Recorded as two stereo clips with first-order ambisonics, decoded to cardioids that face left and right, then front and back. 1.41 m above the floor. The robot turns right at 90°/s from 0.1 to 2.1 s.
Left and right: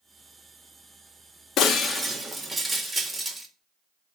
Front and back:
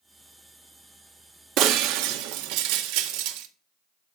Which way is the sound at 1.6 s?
140° left.